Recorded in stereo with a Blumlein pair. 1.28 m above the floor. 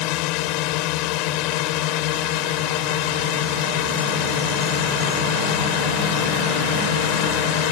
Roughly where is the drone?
Ahead left.